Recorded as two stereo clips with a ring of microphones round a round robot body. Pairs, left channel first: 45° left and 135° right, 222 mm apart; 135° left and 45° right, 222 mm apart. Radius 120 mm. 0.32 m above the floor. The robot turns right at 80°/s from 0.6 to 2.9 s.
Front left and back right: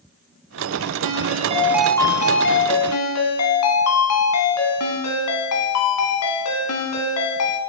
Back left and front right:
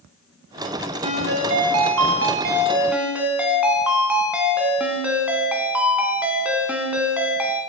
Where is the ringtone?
110° right, 1.2 m; by 7.6 s 40° left, 1.2 m.